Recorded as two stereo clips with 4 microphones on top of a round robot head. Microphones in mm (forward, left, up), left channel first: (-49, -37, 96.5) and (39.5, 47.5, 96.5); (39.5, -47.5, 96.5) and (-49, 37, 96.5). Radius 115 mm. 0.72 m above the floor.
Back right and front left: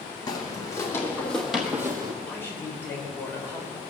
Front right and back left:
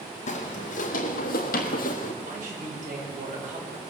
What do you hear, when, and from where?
0.3 s footsteps: 75° right, 1.7 m; by 2.1 s 15° right, 1.0 m
2.2 s a man speaking: 150° left, 4 m